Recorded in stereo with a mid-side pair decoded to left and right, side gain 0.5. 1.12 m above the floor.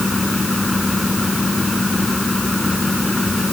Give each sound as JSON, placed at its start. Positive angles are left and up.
{"t": 0.0, "sound": "a fan", "azimuth_deg": 15}